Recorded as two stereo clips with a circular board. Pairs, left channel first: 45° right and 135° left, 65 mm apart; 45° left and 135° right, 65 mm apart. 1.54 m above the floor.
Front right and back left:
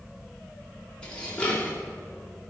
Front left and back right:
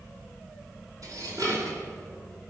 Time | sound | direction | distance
1.0 | dishes clattering | 115° right | 2 m